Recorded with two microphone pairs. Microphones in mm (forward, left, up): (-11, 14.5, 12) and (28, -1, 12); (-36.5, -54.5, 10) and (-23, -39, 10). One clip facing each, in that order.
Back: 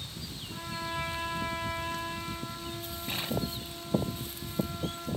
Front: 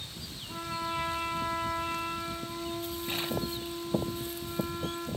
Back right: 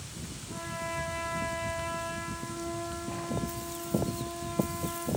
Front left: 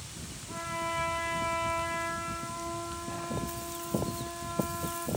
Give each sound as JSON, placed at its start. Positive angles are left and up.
{"t": 0.5, "sound": "a trumpet", "azimuth_deg": 35, "distance_m": 5.0}